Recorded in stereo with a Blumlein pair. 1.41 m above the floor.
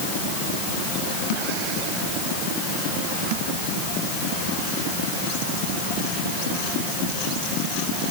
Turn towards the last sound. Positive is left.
No sound to turn to.